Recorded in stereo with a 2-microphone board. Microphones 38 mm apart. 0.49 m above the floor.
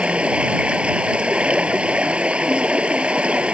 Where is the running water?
35° right (ahead or behind).